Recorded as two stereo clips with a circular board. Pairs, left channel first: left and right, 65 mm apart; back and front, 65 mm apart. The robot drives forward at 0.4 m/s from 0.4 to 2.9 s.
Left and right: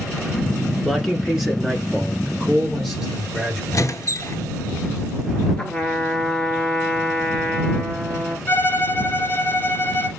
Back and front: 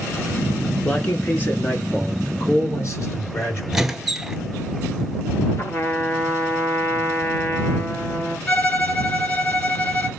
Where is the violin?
135° left, 2 m.